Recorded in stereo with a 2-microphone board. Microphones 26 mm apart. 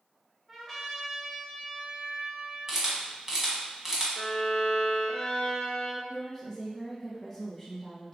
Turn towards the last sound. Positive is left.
turn(degrees=5)  # may be behind; listen again after turning